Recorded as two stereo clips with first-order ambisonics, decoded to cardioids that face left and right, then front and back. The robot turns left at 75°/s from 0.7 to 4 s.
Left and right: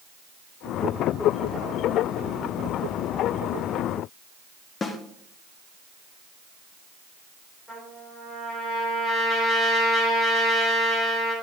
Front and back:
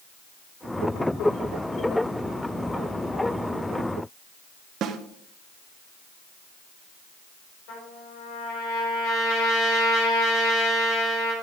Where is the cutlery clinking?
I don't hear cutlery clinking.